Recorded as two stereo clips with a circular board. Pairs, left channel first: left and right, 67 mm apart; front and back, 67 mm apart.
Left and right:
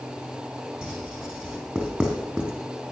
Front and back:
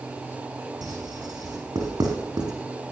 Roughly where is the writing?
Behind.